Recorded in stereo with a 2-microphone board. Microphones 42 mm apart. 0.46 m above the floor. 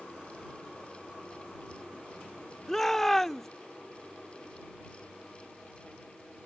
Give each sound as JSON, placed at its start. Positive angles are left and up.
{"t": 2.7, "sound": "a shout", "side_deg": 10}